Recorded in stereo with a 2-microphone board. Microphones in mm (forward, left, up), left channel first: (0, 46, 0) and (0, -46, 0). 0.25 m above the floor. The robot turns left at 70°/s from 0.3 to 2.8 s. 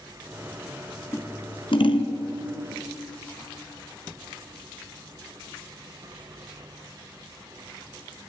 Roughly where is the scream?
I don't hear a scream.